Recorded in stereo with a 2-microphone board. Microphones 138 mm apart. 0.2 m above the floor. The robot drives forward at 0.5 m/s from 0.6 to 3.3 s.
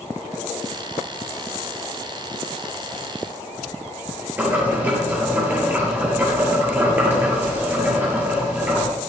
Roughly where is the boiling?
Centre.